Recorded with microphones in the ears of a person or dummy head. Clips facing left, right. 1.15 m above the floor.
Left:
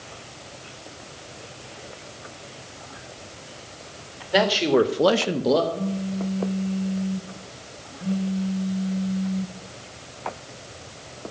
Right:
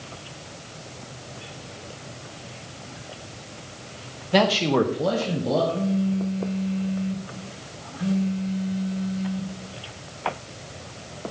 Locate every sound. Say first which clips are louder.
4.3 s a man speaking: left 1 dB; 5° left (ahead or behind), 1.2 m; by 5.6 s 55° left (ahead or behind), 1.0 m
5.7 s a phone buzzing: right 4 dB; 30° right (ahead or behind), 1.0 m